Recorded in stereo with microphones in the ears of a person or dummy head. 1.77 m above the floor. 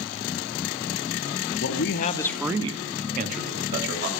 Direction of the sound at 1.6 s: 75° left (ahead or behind).